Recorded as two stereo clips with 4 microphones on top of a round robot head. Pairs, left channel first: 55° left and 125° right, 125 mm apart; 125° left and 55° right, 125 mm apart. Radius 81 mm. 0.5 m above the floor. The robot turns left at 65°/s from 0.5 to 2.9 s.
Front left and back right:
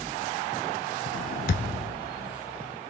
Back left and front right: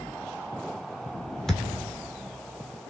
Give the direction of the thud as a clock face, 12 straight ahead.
11 o'clock.